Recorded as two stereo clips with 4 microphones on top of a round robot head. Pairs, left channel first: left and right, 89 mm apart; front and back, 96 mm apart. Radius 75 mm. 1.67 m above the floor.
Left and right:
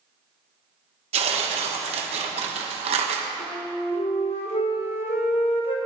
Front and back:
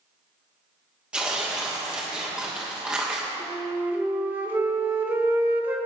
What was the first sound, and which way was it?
Tearing paper, 95° right.